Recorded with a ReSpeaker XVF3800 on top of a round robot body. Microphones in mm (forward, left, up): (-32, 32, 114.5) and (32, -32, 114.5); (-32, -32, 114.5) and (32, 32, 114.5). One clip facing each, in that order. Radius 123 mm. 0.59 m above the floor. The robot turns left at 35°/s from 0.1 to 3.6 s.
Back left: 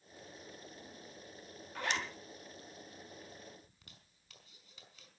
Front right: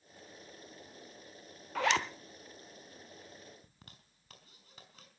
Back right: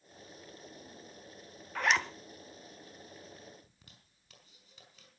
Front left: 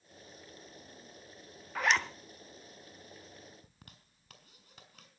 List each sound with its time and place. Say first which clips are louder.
1.8 s a zipper: front right 7 dB, even; 40° right, 1.1 m; by 2.1 s 50° right, 1.1 m
3.6 s a zipper: front right 3 dB, front left 3 dB; 5° left, 4 m